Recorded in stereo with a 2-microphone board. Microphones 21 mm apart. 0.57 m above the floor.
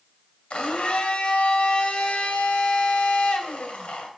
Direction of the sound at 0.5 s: 70° left (ahead or behind).